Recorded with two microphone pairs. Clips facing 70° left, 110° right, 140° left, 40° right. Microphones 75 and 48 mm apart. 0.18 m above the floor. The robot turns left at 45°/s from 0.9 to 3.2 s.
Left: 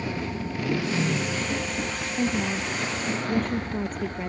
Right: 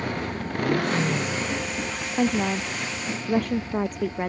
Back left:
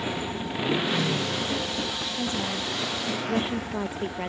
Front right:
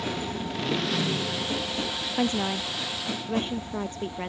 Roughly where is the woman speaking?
Right.